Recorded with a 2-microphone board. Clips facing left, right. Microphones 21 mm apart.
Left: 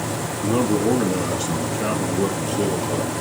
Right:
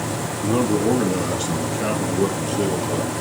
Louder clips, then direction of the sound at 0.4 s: Even; 5° right (ahead or behind).